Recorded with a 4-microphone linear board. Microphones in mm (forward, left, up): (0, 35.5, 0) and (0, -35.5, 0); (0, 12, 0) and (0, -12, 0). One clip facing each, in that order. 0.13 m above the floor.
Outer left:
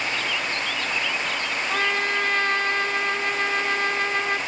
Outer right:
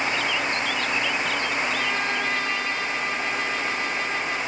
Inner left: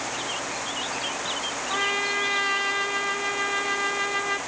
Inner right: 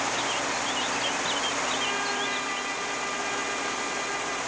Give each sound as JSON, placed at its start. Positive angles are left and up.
{"t": 1.7, "sound": "a trumpet", "side_deg": 45, "distance_m": 1.9}